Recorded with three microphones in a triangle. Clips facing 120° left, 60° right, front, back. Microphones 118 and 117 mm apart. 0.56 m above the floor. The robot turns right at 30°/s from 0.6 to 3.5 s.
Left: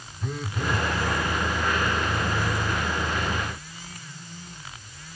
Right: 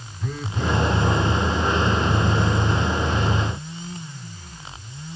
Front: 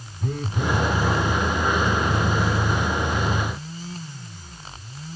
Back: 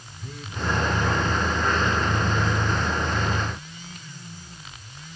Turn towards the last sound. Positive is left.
turn(degrees=120)